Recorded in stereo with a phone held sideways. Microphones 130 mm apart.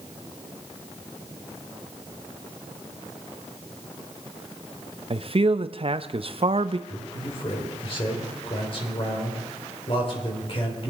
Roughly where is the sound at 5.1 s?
Right.